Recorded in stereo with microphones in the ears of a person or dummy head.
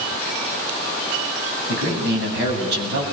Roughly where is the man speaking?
Right.